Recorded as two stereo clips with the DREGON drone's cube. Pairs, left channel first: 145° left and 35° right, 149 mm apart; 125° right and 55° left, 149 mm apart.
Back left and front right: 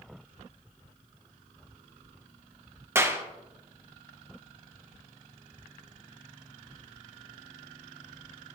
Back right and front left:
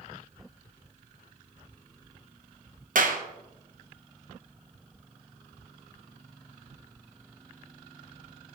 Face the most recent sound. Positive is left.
turn(degrees=40)